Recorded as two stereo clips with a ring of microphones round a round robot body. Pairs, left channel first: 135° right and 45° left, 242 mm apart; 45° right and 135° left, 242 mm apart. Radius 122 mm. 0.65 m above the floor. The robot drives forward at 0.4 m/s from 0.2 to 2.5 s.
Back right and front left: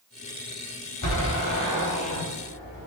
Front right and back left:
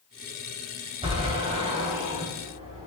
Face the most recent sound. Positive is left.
turn(degrees=-160)